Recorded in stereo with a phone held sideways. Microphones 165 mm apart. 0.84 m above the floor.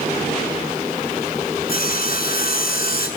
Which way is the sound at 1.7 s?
70° left (ahead or behind).